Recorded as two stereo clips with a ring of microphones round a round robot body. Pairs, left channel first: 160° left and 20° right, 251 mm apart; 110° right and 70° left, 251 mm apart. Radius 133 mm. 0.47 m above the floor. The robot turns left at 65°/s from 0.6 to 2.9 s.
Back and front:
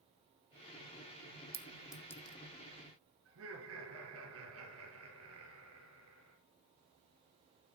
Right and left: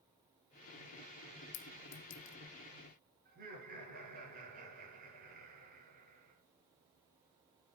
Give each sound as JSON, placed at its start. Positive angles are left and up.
{"t": 1.5, "sound": "a clink", "azimuth_deg": -85, "distance_m": 1.0}
{"t": 3.2, "sound": "laughter", "azimuth_deg": 15, "distance_m": 7.0}